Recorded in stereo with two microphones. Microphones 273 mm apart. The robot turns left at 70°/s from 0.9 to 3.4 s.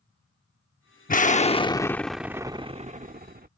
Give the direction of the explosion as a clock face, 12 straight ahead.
10 o'clock.